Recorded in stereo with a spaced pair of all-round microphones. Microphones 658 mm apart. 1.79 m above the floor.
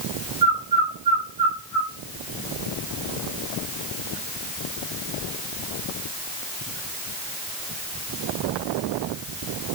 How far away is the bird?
About 1.4 m.